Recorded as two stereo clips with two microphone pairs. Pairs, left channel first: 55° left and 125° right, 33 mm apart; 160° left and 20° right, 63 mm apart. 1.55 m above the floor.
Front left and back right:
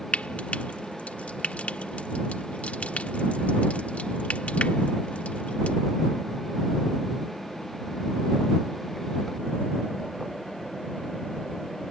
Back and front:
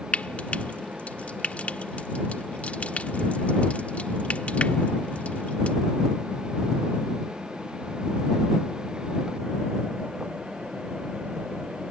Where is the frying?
95° left.